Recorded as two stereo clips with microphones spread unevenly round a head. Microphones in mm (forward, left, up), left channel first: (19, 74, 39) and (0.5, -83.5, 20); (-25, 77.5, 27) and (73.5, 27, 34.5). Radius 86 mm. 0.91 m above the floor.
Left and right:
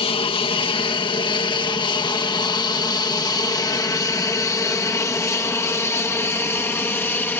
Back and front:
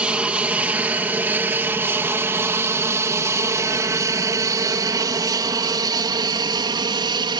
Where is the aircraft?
50° left; by 7.4 s 5° left.